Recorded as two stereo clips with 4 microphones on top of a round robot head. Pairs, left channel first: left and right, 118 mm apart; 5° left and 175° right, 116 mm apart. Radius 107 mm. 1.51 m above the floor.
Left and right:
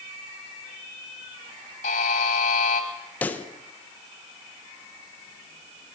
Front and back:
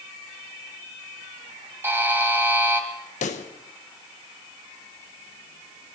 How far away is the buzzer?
About 1.8 m.